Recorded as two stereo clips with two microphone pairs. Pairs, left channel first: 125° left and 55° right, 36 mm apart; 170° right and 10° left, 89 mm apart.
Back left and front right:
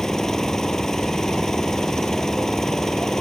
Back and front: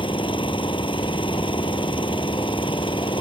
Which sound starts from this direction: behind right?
An engine running, at 0.0 s.